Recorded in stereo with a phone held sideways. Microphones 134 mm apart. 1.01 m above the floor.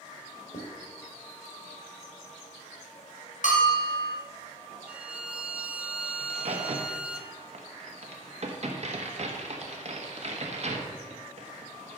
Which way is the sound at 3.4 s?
70° left (ahead or behind).